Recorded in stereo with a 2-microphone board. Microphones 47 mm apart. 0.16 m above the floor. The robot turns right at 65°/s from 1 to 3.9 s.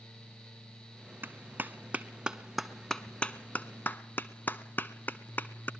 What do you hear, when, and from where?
1.2 s a clap: 40° right (ahead or behind), 1.0 m; by 5.7 s 40° left (ahead or behind), 1.0 m